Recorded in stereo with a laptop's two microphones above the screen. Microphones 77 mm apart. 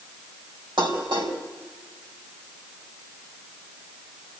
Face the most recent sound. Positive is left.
turn(degrees=-80)